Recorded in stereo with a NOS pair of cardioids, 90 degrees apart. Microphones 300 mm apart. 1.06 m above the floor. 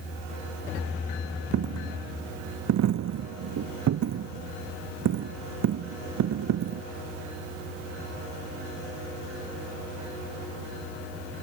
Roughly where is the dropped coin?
Ahead right.